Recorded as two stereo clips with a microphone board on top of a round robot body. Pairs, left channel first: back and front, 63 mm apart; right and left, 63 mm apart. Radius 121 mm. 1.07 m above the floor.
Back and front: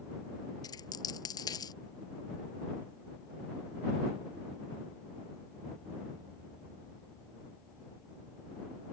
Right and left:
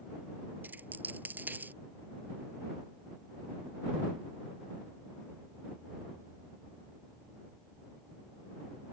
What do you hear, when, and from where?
0.6 s a dropped coin: 155° left